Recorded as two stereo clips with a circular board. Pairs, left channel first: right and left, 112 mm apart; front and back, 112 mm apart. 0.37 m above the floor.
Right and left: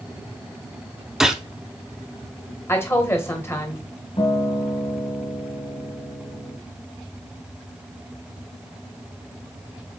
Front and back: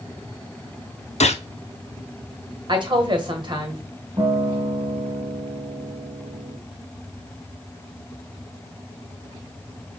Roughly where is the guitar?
Behind right.